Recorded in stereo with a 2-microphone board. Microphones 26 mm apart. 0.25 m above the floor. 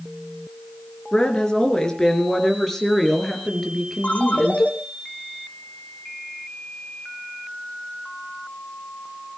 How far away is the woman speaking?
About 4 m.